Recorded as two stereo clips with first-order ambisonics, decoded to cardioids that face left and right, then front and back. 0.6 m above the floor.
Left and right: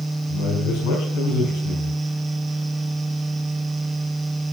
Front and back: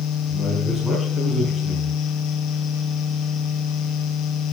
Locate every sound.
0.3 s a man speaking: 95° left, 4.5 m